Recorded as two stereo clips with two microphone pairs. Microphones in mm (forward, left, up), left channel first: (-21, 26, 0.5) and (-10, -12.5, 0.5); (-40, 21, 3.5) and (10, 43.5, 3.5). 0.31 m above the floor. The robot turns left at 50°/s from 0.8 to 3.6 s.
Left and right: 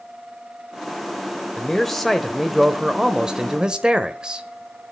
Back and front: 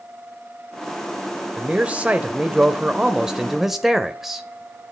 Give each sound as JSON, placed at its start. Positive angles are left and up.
{"t": 1.6, "sound": "a man speaking", "azimuth_deg": 45, "distance_m": 0.9}